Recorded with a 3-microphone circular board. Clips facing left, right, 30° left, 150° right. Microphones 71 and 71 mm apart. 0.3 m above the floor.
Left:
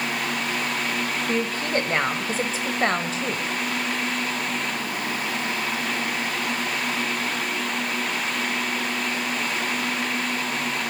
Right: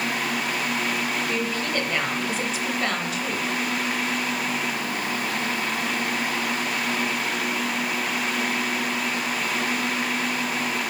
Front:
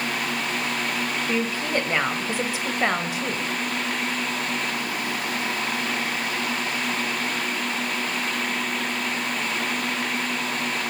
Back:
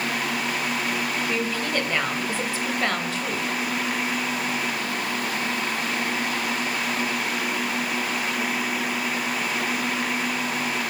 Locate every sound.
1.3 s a woman speaking: 85° left, 1.6 m